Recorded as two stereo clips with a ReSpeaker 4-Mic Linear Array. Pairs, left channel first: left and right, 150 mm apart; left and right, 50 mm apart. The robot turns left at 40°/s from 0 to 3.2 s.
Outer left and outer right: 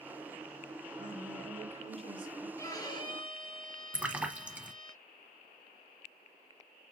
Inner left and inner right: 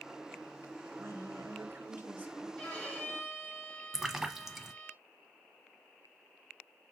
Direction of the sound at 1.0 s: 90° right.